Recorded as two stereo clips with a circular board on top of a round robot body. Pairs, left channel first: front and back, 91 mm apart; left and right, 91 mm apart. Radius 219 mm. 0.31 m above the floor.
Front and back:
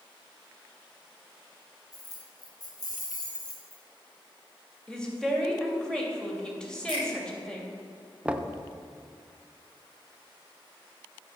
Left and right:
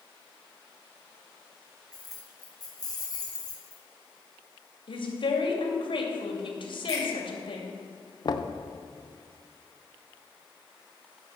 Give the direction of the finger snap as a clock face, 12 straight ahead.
11 o'clock.